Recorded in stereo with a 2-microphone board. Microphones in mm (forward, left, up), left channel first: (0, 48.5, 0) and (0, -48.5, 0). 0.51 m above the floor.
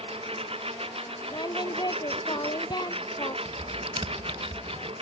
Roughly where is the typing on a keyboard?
Right.